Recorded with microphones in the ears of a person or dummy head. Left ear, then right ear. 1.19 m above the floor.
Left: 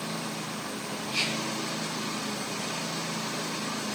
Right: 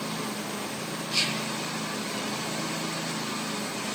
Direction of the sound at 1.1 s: 35° right (ahead or behind).